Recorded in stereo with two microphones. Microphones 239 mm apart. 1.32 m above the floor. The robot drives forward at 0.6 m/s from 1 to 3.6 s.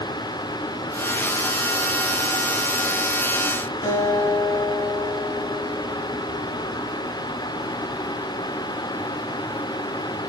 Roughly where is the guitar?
Left.